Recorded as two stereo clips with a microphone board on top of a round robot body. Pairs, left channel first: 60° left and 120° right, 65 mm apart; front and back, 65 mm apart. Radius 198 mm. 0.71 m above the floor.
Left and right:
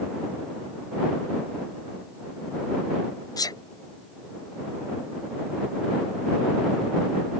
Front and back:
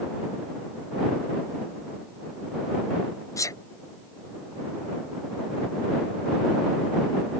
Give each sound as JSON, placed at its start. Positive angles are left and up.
{"t": 3.4, "sound": "a sneeze", "azimuth_deg": 35}